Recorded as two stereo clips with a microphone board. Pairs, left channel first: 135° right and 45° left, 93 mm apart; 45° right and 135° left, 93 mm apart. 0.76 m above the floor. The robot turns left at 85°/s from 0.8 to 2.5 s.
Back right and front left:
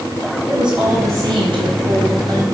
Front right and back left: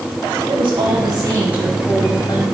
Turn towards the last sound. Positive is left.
turn(degrees=-20)